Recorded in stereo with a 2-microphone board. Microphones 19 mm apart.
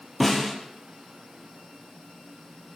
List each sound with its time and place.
0.2 s a snare drum: 10° left (ahead or behind), 5 m